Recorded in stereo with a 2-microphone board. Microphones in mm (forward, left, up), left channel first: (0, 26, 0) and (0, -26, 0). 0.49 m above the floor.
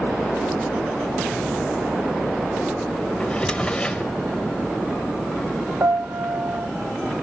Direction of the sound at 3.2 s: 20° left (ahead or behind).